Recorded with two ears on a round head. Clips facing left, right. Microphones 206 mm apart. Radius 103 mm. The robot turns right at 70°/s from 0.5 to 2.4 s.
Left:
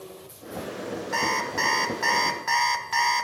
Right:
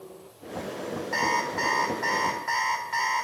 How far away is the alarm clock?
About 1.3 m.